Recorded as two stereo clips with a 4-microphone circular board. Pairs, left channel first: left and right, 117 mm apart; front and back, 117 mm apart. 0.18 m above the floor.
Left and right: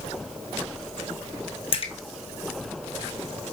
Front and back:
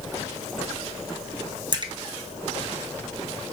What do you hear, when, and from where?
1.7 s a splash: 130° left, 0.8 m